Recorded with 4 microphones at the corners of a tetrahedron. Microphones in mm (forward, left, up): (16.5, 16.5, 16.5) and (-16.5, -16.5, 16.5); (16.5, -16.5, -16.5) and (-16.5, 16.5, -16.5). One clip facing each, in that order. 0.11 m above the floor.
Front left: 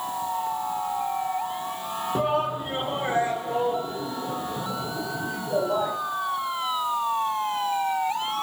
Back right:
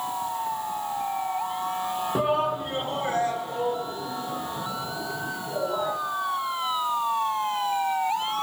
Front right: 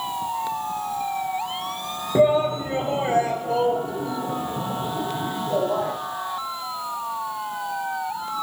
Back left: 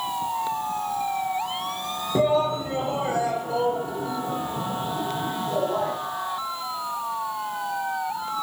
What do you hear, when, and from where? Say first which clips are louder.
2.1 s a shout: even, front right 3 dB; 65° right, 1.2 m; by 5.9 s 5° right, 3.5 m